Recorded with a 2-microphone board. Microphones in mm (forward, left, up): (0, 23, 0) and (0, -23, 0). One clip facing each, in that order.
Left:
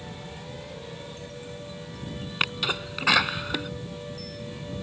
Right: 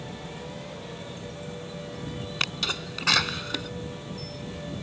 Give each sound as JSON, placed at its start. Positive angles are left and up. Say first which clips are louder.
{"t": 2.4, "sound": "a sneeze", "louder": "left 3 dB", "side_deg": 15}